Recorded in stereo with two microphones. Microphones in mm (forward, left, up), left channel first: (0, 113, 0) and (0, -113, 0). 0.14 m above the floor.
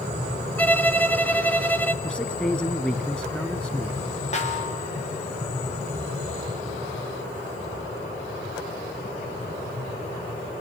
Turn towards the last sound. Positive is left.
turn(degrees=30)  # may be behind; listen again after turning